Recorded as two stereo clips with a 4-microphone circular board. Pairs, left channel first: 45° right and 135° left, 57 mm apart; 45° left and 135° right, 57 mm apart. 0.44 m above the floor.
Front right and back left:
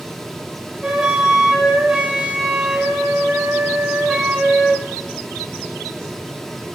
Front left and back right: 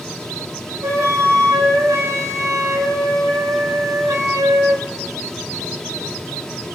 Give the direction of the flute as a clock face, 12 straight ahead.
5 o'clock.